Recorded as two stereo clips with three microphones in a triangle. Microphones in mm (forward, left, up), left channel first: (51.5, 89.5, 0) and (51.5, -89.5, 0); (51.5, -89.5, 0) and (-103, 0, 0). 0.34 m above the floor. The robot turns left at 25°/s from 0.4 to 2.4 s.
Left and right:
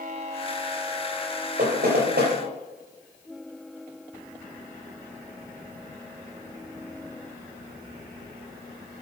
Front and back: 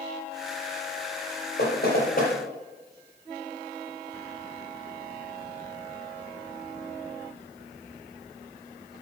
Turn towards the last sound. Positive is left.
turn(degrees=-75)